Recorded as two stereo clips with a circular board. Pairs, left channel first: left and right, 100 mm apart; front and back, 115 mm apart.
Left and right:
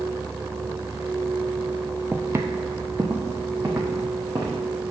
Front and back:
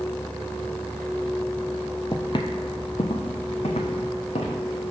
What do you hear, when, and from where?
2.1 s footsteps: 30° right, 0.5 m; by 4.6 s 25° right, 2 m